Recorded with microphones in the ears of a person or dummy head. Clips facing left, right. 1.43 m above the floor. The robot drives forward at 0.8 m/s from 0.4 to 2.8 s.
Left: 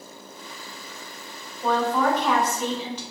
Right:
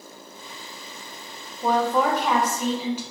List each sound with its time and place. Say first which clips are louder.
1.6 s a woman speaking: right 1 dB; 10° right (ahead or behind), 0.6 m; by 3.0 s 5° right (ahead or behind), 1.5 m